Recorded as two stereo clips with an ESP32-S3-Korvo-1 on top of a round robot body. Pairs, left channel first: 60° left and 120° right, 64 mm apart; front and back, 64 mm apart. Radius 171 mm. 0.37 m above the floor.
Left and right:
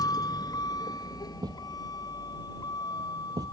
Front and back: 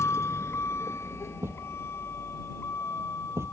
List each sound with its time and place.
0.0 s a vehicle: 50° left; by 3.5 s 55° left
1.4 s a thud: 130° right